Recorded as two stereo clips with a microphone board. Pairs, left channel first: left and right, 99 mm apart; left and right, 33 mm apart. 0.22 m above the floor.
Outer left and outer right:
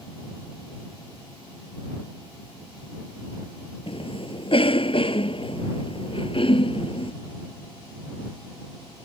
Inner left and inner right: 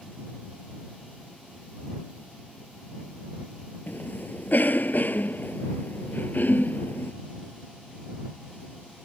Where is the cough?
65° left (ahead or behind).